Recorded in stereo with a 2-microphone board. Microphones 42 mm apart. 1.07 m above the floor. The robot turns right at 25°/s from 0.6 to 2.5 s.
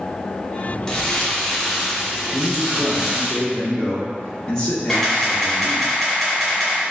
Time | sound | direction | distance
0.9 | crumpling | 160° left | 0.8 m
2.3 | a man speaking | 15° left (ahead or behind) | 0.9 m
4.9 | a camera shutter | centre (ahead or behind) | 1.6 m